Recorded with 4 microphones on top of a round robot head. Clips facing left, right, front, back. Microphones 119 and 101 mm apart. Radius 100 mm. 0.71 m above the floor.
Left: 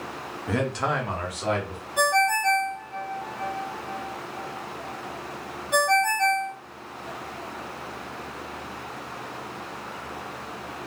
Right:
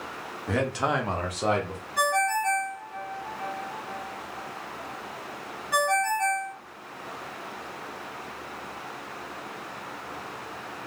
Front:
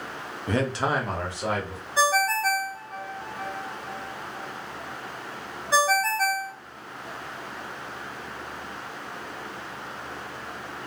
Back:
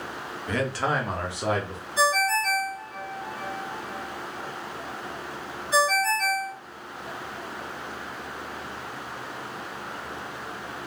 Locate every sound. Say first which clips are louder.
0.5 s a man speaking: even, front 1 dB; 10° left, 0.7 m; by 1.8 s 125° right, 1.1 m
2.0 s a ringtone: left 3 dB, front 1 dB; 25° left, 1.3 m